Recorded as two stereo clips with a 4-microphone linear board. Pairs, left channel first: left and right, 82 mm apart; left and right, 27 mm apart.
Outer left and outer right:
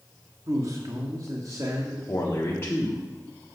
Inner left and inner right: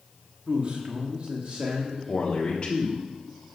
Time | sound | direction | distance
0.5 | a man speaking | 45° right (ahead or behind) | 1.4 m
2.1 | a man speaking | 35° left (ahead or behind) | 1.3 m